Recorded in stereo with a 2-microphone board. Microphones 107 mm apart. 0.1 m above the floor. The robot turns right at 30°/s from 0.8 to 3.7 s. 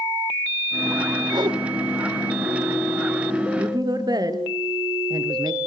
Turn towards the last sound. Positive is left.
turn(degrees=-40)  # may be behind; listen again after turning